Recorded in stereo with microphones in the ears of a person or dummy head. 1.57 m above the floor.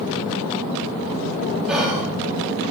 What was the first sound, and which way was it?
Whispering, 5° right (ahead or behind).